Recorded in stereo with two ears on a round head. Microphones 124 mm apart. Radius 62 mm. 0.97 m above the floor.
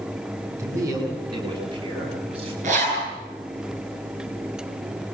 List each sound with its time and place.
0.6 s a man speaking: 20° right (ahead or behind), 6.5 m; by 2.5 s 45° right (ahead or behind), 7 m
2.6 s a zipper: 55° right (ahead or behind), 9.5 m